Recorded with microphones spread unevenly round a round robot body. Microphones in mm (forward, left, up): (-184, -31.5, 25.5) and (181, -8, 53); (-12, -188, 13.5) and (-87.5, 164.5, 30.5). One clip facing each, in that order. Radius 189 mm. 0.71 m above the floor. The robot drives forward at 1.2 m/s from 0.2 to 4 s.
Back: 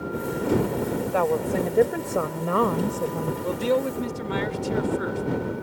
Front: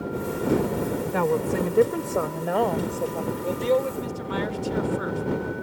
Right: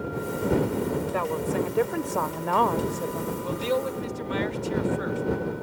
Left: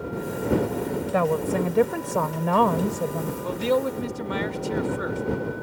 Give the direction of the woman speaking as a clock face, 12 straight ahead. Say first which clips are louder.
Even, left 4 dB; 10 o'clock.